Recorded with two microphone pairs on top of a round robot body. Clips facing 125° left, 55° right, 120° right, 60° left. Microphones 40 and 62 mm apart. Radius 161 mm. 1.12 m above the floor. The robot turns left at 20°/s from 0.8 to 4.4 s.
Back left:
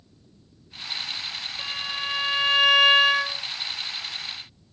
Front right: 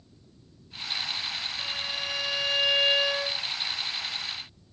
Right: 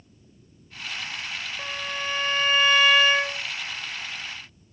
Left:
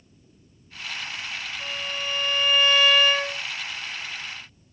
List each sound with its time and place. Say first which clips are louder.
1.6 s a violin: back left 5 dB, right 1 dB; 160° right, 0.6 m; by 3.4 s 165° left, 0.6 m